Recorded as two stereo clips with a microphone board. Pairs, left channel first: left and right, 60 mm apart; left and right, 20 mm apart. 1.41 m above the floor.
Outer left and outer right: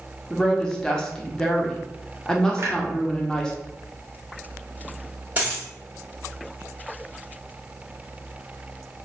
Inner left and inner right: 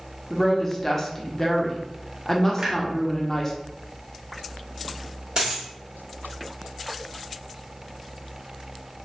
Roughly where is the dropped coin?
Right.